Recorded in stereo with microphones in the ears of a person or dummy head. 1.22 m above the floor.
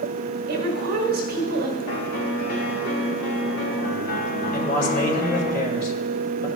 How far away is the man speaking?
About 2 m.